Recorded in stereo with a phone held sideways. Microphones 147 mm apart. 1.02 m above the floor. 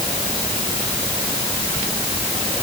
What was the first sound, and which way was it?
Only background noise.